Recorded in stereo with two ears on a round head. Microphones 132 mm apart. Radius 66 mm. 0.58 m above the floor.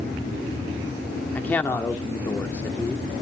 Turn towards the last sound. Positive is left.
turn(degrees=10)  # may be behind; listen again after turning